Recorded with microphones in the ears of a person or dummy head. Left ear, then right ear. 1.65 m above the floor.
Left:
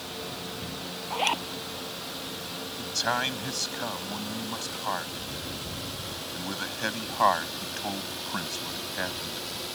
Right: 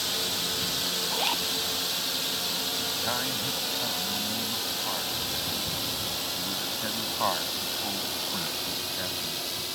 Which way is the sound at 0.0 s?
45° right (ahead or behind).